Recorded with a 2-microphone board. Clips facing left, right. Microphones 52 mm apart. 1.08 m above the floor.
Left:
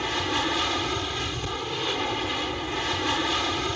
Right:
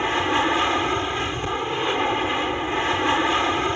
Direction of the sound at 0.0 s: 25° right (ahead or behind).